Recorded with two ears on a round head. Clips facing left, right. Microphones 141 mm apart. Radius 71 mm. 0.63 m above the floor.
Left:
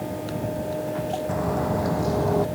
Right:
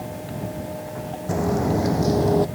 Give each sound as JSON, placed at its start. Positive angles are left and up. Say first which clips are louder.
{"t": 1.3, "sound": "footsteps", "louder": "right 6 dB", "side_deg": -35}